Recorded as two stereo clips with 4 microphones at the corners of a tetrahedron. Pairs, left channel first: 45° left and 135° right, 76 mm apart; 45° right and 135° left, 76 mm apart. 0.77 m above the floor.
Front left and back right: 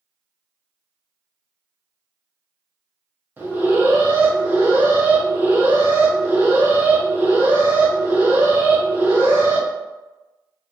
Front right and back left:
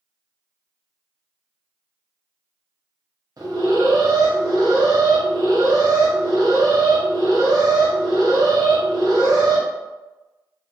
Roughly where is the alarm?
Behind.